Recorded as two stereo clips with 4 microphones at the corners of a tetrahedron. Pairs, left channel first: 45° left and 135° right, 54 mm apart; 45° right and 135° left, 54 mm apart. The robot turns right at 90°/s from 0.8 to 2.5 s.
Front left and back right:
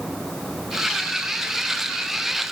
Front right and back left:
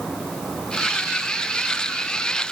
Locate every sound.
Only background noise.